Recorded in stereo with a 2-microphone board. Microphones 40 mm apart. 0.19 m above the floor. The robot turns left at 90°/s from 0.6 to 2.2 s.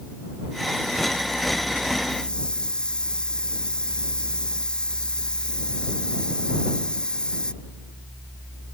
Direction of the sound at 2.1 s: 30° left (ahead or behind).